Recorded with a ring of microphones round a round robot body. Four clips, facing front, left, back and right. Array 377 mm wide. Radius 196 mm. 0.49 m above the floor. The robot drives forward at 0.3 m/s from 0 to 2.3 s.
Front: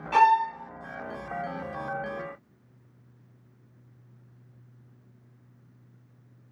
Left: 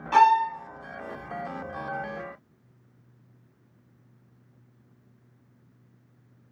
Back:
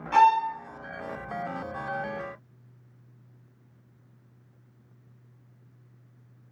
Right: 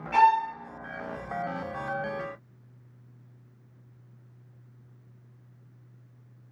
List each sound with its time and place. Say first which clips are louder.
0.1 s a violin: left 2 dB, even; 85° left, 1.7 m; by 0.5 s 90° left, 1.7 m